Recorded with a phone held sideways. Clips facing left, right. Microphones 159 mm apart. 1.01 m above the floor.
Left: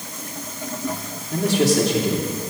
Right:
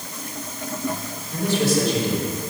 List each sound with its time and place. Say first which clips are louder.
1.3 s a man speaking: left 3 dB; 75° left (ahead or behind), 3 m